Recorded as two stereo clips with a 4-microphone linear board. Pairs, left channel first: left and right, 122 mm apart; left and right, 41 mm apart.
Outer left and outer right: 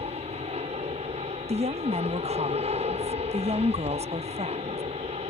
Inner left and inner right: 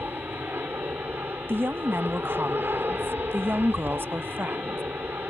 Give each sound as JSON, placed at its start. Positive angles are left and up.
{"t": 0.0, "sound": "an aircraft", "side_deg": -60}
{"t": 1.5, "sound": "a woman speaking", "side_deg": -60}